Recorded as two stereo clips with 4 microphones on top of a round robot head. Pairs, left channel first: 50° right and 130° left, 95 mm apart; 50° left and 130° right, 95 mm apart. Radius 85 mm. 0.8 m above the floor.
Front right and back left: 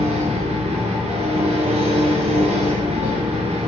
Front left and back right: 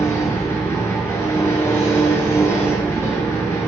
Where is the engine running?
115° left, 5 m.